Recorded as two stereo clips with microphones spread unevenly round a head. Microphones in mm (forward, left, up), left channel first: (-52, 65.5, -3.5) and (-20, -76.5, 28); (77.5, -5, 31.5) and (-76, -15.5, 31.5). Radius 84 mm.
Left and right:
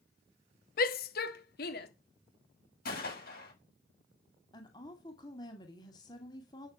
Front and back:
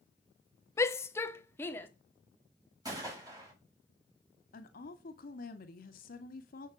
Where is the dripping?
No dripping in this recording.